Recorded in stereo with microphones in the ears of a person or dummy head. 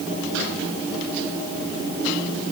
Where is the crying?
I don't hear crying.